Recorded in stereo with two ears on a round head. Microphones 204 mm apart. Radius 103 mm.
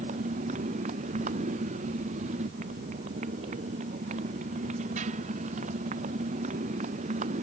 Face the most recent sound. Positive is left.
turn(degrees=-30)  # may be behind; listen again after turning